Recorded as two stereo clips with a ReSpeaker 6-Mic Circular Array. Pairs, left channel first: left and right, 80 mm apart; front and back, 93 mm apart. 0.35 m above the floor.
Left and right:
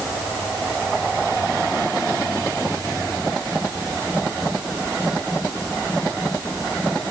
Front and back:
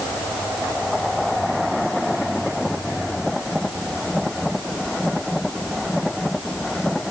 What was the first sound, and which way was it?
Only background noise.